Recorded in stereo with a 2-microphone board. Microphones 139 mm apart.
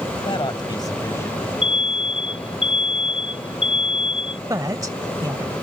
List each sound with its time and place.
0.2 s a man speaking: 40° left (ahead or behind); by 1.5 s 15° left (ahead or behind)
1.6 s an alarm: 40° left (ahead or behind)
4.5 s a woman speaking: 25° right (ahead or behind)